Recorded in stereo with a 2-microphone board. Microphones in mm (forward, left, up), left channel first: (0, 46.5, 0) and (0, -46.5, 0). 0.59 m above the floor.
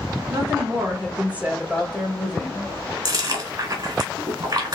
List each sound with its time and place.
0.3 s a woman speaking: 45° right (ahead or behind), 1.7 m; by 2.7 s 15° left (ahead or behind), 2.5 m
3.0 s chewing: 50° right (ahead or behind), 1.6 m